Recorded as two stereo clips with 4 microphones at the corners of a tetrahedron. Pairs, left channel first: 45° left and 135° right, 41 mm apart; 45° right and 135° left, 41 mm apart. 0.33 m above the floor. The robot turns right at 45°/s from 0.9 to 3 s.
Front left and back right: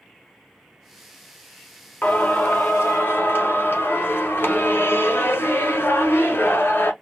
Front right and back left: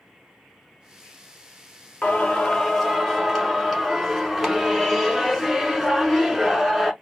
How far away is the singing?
About 1.0 m.